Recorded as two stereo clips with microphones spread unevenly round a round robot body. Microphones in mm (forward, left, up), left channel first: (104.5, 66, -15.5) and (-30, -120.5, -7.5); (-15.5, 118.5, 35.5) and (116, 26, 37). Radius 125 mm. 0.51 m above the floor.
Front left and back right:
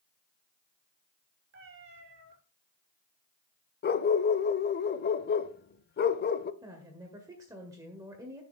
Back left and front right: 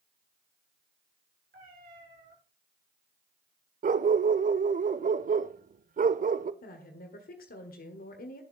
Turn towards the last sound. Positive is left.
turn(degrees=155)